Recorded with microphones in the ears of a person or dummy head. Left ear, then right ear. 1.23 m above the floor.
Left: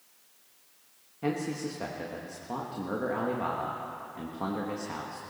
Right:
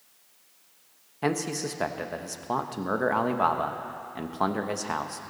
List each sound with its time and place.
1.2 s a man speaking: 50° right (ahead or behind), 1.0 m